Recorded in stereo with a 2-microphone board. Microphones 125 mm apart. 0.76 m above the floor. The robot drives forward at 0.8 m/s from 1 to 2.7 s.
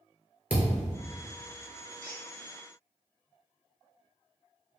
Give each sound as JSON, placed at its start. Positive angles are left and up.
{"t": 0.5, "sound": "a thud", "side_deg": -15, "distance_m": 1.5}
{"t": 2.0, "sound": "a squeak", "side_deg": 5, "distance_m": 1.6}